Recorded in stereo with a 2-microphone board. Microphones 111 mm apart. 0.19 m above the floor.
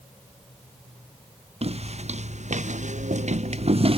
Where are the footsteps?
60° right (ahead or behind); by 4.0 s 50° right (ahead or behind).